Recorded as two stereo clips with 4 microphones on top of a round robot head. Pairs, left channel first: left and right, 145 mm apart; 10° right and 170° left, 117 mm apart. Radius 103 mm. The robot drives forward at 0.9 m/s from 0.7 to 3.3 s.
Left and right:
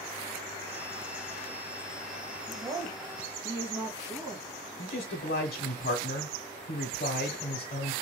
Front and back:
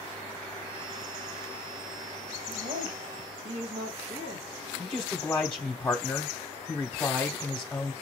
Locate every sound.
2.5 s a woman speaking: 155° right, 1.6 m; by 4.5 s 160° right, 2.5 m
4.8 s a man speaking: 70° left, 0.9 m